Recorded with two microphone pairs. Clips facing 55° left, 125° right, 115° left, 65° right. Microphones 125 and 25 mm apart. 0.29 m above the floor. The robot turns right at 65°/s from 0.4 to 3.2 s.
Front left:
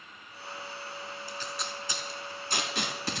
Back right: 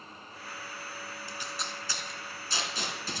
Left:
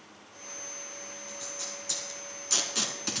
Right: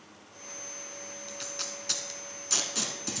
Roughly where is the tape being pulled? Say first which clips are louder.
Front left 1 dB, right 3 dB; ahead right.